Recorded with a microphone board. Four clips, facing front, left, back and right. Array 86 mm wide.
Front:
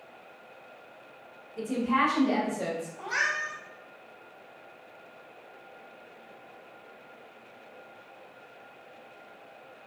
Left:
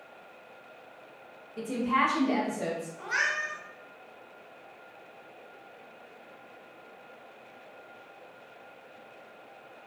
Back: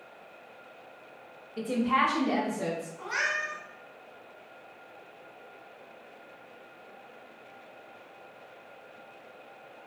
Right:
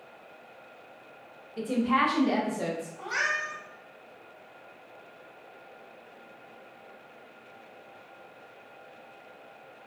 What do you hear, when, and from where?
1.6 s a woman speaking: 150° right, 0.8 m; by 2.9 s 60° right, 1.0 m
3.0 s a cat meowing: 20° right, 1.8 m